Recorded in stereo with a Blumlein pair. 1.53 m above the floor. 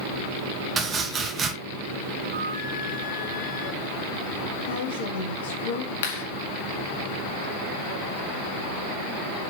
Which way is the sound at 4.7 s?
60° left.